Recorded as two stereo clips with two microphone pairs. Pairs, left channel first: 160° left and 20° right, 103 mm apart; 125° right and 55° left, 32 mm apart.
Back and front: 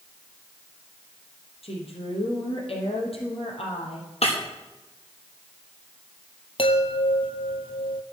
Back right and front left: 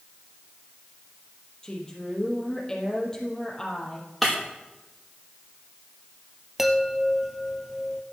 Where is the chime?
140° left, 1.1 m.